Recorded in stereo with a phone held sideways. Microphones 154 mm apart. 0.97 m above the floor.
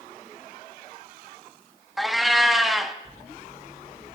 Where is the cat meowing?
Centre (ahead or behind), 0.5 m.